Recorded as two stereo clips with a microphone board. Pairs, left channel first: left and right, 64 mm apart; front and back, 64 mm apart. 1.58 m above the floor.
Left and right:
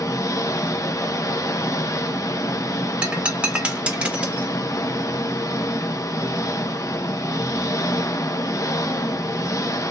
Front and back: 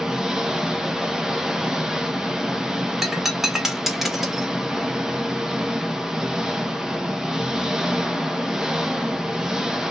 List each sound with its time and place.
0.0 s an engine running: 100° left, 0.7 m
3.0 s breaking glass: 100° right, 1.2 m